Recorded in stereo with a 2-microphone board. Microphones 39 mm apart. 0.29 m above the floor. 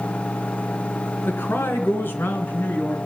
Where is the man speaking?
70° left (ahead or behind), 2.5 m; by 3.0 s 65° left (ahead or behind), 3 m.